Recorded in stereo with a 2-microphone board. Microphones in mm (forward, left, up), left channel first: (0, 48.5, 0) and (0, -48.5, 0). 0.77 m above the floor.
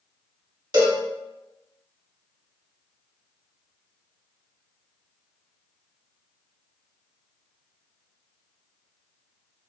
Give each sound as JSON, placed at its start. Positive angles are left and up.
{"t": 0.7, "sound": "a cowbell", "side_deg": -50, "distance_m": 0.9}